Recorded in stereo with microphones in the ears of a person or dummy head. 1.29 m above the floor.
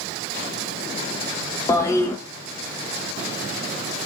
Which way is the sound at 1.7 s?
20° left (ahead or behind).